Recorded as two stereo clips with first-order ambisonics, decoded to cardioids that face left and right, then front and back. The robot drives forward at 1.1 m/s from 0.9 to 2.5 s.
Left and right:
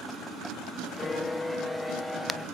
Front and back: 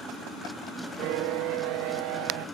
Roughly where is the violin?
Behind.